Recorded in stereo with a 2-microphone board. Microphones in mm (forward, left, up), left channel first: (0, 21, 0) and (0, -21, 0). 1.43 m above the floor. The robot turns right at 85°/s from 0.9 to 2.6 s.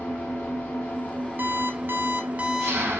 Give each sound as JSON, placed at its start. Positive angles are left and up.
{"t": 0.0, "sound": "an engine running", "azimuth_deg": 120, "distance_m": 3.0}
{"t": 1.4, "sound": "an alarm clock", "azimuth_deg": -125, "distance_m": 1.3}